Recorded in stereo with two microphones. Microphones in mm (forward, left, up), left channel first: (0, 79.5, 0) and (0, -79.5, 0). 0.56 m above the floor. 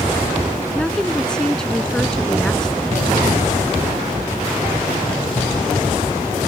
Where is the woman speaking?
5° left (ahead or behind).